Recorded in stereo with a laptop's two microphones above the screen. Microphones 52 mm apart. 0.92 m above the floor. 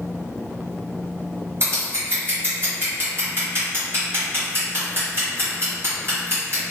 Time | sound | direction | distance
1.6 | scissors | 45° right (ahead or behind) | 1.3 m